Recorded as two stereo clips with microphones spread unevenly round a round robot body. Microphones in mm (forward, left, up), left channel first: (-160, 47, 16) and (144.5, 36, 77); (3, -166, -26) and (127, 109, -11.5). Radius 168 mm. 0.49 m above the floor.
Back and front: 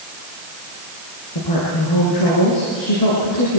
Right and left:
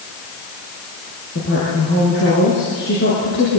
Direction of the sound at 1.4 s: 175° right.